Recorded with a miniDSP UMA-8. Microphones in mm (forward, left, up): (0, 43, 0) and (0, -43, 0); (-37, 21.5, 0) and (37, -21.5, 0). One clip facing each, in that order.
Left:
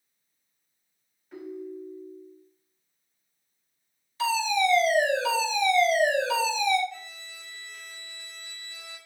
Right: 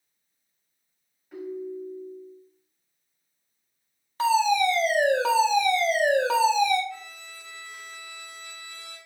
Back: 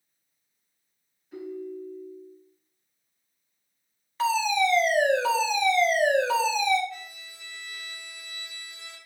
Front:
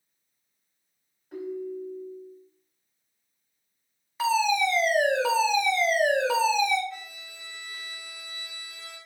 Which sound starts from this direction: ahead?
A ringtone, at 1.3 s.